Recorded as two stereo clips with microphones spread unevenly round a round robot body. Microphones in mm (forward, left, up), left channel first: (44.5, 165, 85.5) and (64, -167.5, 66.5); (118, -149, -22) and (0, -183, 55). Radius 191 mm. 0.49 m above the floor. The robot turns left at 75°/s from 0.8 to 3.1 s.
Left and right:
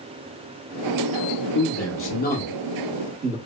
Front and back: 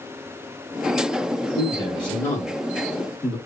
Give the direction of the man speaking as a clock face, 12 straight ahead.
9 o'clock.